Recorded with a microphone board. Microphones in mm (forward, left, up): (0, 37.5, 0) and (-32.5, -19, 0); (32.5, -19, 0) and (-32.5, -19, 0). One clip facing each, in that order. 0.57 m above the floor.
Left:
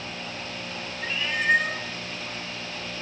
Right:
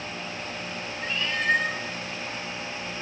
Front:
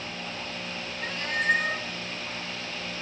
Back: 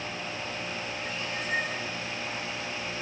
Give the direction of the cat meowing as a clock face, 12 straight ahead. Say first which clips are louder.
Left 1 dB, front 12 dB; 1 o'clock.